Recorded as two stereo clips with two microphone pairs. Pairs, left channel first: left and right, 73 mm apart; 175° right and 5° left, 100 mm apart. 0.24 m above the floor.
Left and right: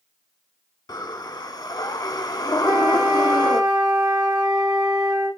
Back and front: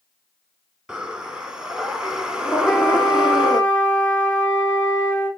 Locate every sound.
0.9 s breathing: 85° left, 0.8 m
2.6 s a flute: 100° right, 3 m